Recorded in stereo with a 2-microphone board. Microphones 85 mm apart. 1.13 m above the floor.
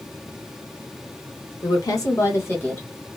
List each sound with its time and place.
1.6 s a woman speaking: 50° left (ahead or behind), 1.0 m; by 2.9 s 25° left (ahead or behind), 1.6 m